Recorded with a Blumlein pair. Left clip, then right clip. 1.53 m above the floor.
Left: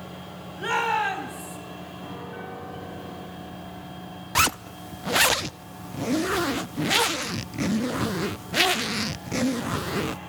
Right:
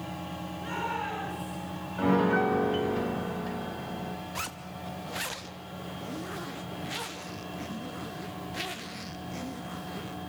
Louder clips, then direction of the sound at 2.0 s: Right 16 dB; 55° right.